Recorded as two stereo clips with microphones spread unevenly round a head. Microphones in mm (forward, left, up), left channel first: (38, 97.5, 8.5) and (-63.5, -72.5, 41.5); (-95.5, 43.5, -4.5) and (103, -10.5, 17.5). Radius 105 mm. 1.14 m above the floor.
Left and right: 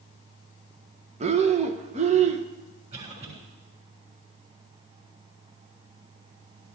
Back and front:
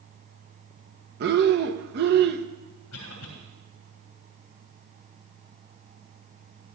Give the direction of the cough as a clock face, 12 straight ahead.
6 o'clock.